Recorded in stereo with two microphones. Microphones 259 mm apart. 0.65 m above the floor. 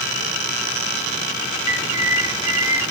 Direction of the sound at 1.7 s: 60° right (ahead or behind).